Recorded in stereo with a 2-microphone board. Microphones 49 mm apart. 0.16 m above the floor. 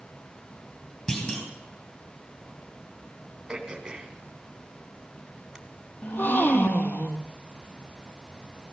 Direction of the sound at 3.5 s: 15° right (ahead or behind).